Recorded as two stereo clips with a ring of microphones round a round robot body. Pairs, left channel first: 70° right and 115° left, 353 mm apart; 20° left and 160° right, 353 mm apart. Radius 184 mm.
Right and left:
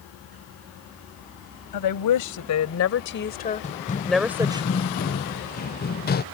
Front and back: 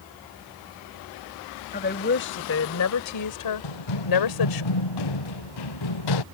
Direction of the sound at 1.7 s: 40° right.